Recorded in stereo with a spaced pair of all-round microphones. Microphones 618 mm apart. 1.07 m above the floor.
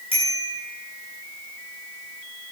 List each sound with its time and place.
0.1 s a bicycle bell: 10° right (ahead or behind), 7.5 m